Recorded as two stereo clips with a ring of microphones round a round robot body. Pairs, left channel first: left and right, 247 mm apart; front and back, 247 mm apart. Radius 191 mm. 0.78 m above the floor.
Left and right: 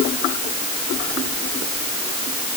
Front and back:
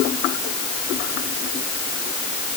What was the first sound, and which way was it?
Only background noise.